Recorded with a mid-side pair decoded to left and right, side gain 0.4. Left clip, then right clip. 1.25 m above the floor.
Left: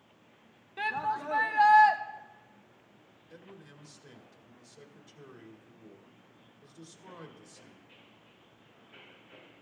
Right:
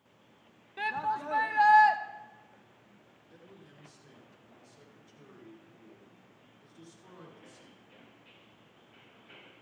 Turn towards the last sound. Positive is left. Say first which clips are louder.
# left 4 dB
turn(degrees=50)